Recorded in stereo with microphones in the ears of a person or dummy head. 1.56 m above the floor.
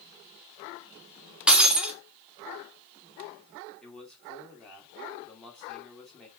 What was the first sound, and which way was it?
Breaking glass, centre (ahead or behind).